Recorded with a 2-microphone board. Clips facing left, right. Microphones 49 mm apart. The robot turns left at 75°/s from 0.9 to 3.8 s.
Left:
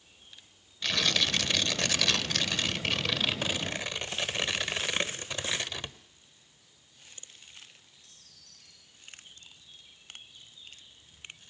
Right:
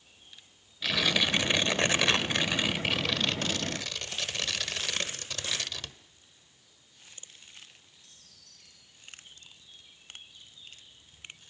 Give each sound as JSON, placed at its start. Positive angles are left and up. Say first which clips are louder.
{"t": 0.8, "sound": "tearing paper", "louder": "right 1 dB", "side_deg": -5, "distance_m": 1.2}